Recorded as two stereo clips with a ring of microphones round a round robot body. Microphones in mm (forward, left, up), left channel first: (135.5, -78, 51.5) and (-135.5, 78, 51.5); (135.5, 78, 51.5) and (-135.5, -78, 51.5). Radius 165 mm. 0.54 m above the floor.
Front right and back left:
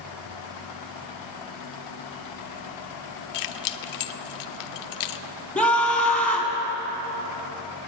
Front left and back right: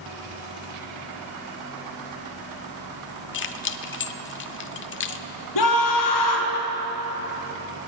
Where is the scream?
55° left, 4.5 m.